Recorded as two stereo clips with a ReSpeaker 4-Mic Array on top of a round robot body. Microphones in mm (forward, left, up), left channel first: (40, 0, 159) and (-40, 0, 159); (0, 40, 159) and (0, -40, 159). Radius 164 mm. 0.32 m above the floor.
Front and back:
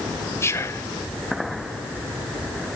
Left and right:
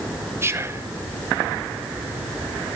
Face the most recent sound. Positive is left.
turn(degrees=-45)